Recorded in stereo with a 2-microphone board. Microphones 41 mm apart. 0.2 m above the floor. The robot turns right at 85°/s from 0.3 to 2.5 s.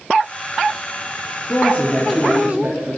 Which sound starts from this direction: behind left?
A woman speaking, at 1.5 s.